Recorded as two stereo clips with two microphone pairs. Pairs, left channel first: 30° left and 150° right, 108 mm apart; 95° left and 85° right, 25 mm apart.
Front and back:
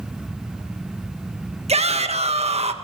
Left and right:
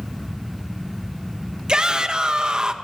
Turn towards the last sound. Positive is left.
turn(degrees=-145)